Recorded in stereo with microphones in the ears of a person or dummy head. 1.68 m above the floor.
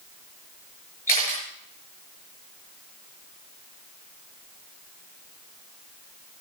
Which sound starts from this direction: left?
A camera shutter, at 1.1 s.